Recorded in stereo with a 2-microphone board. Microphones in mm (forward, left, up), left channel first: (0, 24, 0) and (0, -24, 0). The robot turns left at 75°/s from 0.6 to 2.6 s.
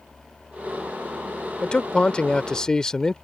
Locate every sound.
1.6 s a man speaking: 20° left (ahead or behind); by 3.1 s 15° left (ahead or behind)